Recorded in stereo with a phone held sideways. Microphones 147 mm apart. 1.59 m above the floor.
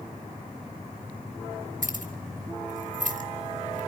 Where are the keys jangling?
65° right (ahead or behind), 1.7 m.